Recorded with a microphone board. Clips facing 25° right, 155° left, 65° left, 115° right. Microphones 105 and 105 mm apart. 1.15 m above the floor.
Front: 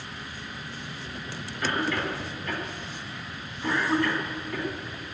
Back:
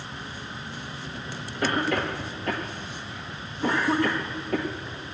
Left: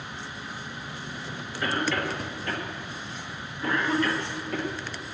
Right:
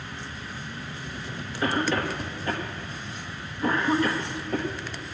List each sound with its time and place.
1.6 s a cough: straight behind, 1.1 m